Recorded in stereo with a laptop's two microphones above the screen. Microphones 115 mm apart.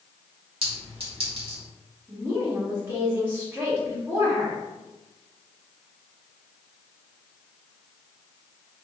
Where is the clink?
55° right (ahead or behind), 1.4 m.